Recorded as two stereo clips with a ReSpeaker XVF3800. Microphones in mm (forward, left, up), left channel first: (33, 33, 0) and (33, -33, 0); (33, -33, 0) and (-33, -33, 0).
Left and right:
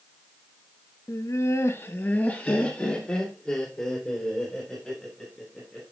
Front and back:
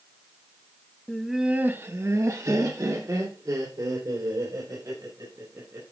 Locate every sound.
1.1 s laughter: 75° left, 0.8 m; by 5.8 s 170° left, 5 m